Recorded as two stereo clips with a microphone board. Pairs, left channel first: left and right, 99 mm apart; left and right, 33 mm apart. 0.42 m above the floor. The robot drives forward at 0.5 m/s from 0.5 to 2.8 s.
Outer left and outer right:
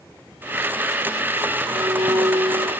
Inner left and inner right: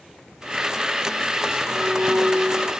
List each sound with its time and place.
1.7 s a violin: 90° right, 5.5 m; by 2.7 s 85° right, 5.5 m